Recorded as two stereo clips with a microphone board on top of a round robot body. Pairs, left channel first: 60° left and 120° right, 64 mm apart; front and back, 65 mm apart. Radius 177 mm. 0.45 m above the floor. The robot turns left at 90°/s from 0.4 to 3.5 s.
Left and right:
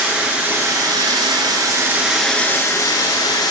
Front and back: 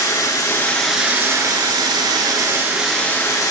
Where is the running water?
45° right, 1.0 m; by 3.5 s 35° left, 1.0 m.